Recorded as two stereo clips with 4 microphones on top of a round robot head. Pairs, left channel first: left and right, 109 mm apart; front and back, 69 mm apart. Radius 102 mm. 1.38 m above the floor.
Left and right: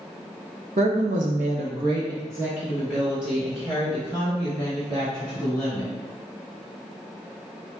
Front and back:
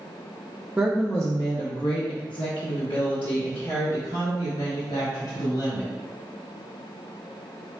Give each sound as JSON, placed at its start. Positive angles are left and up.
{"t": 0.8, "sound": "a woman speaking", "azimuth_deg": -105, "distance_m": 0.5}